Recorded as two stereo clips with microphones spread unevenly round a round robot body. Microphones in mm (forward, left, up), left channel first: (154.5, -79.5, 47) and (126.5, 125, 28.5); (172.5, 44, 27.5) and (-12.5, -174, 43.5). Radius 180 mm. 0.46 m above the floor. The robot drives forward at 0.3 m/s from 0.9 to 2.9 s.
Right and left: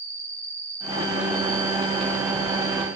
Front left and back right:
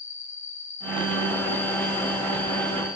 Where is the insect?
50° left, 2 m; by 3.0 s 90° left, 2 m.